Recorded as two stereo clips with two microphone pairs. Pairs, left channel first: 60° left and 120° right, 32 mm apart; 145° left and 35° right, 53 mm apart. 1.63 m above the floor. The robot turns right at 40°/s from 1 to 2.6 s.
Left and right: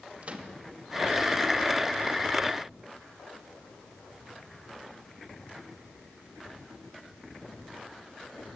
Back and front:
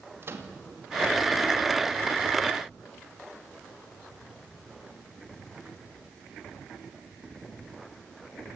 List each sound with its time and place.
0.2 s a microwave: 75° right, 2.5 m